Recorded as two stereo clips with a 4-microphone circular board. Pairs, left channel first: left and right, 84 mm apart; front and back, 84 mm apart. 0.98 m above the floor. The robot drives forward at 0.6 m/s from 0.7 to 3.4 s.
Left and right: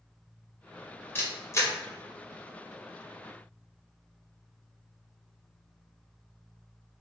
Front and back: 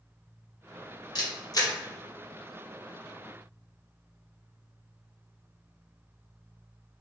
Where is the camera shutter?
30° left, 1.4 m; by 1.7 s 40° left, 1.1 m.